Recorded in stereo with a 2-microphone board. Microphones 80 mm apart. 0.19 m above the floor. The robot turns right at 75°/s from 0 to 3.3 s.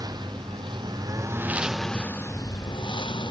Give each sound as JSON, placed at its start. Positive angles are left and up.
{"t": 0.0, "sound": "a lawn mower", "side_deg": -50}